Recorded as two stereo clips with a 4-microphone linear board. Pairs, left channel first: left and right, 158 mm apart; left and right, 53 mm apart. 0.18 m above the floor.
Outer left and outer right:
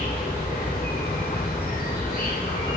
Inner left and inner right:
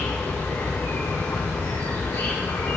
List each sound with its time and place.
0.0 s an insect: 65° left (ahead or behind), 2.5 m